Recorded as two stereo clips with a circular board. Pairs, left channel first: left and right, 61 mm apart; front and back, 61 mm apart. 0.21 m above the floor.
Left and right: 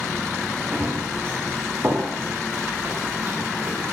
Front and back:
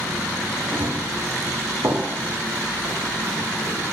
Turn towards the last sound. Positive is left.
turn(degrees=-140)